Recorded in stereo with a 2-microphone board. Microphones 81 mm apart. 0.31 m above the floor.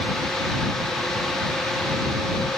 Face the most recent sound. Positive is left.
No sound to turn to.